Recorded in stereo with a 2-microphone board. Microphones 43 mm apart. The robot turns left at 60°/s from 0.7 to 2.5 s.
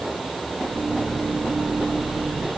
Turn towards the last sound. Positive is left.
No sound to turn to.